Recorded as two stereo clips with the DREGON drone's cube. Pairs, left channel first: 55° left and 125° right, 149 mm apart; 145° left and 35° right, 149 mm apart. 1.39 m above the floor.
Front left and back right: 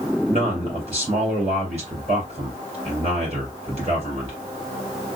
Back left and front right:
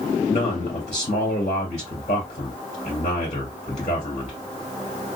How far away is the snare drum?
No snare drum in this recording.